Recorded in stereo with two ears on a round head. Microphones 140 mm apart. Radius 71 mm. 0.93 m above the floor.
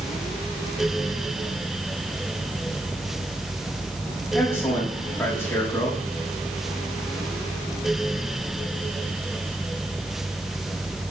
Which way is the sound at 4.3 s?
15° left (ahead or behind).